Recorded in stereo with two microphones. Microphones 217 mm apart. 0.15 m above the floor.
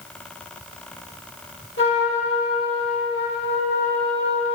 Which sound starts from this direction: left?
A trumpet, at 1.8 s.